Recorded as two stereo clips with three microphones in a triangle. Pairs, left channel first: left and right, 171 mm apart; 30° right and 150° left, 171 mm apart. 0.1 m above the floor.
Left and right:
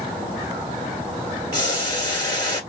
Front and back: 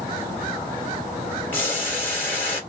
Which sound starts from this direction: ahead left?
Boiling, at 1.5 s.